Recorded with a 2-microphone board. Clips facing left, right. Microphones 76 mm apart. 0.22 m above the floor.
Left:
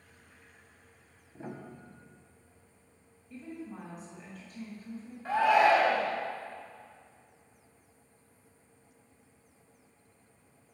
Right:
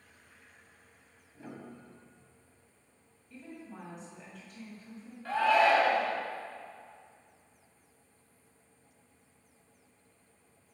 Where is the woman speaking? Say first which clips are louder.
Left 4 dB; 5° left (ahead or behind), 1.6 m.